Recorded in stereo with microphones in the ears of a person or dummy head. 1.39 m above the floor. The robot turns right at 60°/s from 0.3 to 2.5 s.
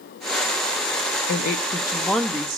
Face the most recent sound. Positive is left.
turn(degrees=-160)